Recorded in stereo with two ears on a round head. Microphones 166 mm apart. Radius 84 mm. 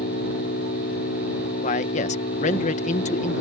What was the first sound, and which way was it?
An engine running, 55° left (ahead or behind).